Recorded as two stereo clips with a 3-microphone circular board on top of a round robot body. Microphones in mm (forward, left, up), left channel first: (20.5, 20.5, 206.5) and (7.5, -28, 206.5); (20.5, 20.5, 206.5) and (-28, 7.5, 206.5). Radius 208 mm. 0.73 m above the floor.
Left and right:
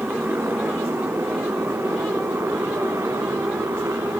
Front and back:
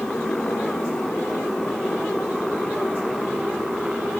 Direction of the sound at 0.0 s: 60° right.